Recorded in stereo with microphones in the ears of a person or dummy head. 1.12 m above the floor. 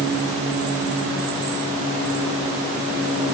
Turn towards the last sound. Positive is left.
No sound to turn to.